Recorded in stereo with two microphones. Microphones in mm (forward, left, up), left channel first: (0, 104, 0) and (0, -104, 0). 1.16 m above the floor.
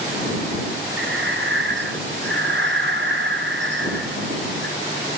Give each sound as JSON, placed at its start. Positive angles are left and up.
{"t": 1.0, "sound": "breathing", "side_deg": -60}